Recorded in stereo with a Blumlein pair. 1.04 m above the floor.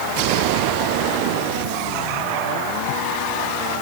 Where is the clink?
No clink in this recording.